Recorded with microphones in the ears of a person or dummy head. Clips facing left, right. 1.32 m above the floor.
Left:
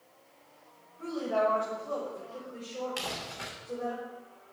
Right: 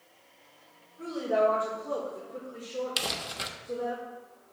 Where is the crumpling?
50° right (ahead or behind), 1.1 m.